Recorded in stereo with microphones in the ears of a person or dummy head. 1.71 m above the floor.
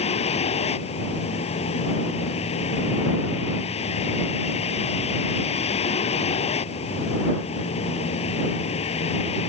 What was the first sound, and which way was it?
A vehicle, 35° left (ahead or behind).